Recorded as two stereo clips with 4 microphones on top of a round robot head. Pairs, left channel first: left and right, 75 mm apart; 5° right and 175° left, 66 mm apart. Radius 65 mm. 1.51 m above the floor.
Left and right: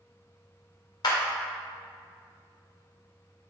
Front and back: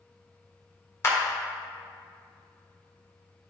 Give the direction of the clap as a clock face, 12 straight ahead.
11 o'clock.